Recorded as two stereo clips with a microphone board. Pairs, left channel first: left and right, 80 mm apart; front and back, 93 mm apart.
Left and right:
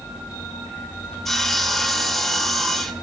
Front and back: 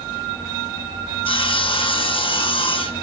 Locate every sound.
1.2 s sawing: 5° left, 1.4 m